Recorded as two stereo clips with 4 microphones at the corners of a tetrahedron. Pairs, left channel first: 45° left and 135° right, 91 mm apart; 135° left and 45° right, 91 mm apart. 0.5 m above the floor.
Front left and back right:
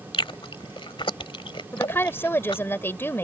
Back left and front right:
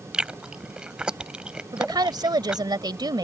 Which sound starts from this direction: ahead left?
Chewing, at 0.1 s.